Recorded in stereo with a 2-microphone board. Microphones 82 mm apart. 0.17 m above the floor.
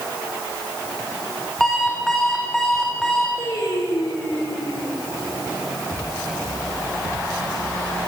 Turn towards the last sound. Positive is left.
turn(degrees=75)  # may be behind; listen again after turning